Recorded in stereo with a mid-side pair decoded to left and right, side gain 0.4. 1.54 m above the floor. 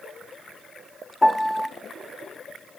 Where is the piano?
20° left, 0.7 m.